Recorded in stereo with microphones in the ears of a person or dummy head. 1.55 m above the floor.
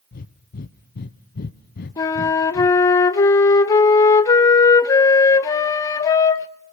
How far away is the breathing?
About 0.7 m.